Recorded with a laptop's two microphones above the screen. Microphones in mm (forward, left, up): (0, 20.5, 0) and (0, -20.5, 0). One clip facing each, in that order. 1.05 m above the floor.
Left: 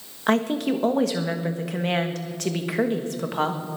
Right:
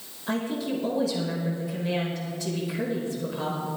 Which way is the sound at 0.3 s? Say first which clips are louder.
Left 7 dB; 65° left (ahead or behind).